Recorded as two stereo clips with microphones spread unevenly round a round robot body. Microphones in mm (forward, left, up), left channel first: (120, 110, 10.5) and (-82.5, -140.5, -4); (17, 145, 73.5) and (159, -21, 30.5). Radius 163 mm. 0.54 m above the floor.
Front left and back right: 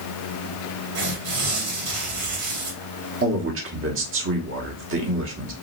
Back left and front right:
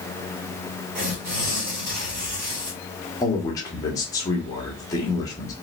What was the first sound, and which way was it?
Tearing paper, 100° right.